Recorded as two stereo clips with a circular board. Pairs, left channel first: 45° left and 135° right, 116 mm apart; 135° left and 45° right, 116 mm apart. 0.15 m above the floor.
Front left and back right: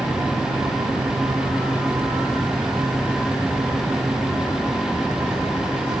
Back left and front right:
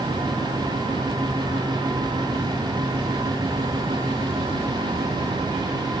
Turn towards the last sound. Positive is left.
No sound to turn to.